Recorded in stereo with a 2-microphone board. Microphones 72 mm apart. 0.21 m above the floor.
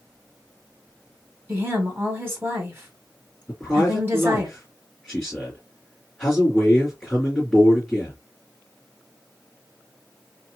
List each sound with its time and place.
1.5 s a woman speaking: 30° right (ahead or behind), 1.5 m
3.5 s a man speaking: 5° left (ahead or behind), 2.5 m